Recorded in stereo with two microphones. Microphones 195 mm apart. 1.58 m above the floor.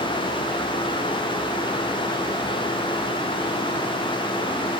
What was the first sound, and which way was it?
Only background noise.